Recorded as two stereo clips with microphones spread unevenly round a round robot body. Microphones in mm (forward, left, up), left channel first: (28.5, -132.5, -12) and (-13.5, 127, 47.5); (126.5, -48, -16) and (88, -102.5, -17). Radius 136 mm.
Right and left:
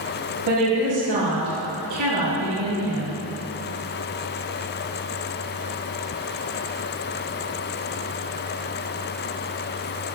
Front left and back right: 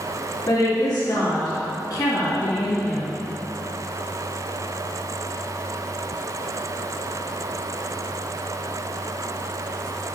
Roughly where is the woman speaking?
Left.